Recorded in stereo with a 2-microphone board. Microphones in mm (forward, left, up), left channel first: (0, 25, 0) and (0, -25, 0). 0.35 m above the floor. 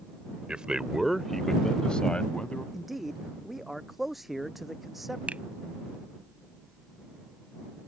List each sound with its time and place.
0.5 s a man speaking: 20° right (ahead or behind); by 2.6 s 25° left (ahead or behind)
2.7 s a man speaking: 5° right (ahead or behind)
5.3 s a finger snap: 30° right (ahead or behind)